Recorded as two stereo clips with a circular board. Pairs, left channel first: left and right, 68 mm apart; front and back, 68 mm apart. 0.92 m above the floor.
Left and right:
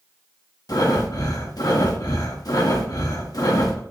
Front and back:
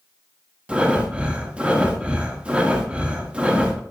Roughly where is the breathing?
Left.